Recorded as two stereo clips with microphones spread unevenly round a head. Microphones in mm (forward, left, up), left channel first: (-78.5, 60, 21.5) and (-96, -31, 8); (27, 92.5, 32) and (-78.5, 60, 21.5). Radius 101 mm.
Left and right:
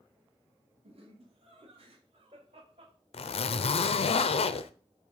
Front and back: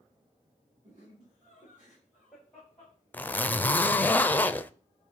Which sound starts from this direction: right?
Laughter, at 0.8 s.